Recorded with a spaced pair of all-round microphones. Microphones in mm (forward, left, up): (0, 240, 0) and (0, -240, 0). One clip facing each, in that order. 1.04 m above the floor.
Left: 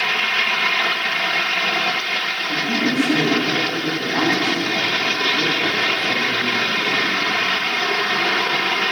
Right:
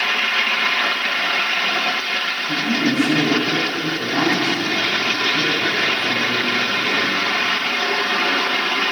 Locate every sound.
2.5 s a man speaking: 40° right (ahead or behind), 9.5 m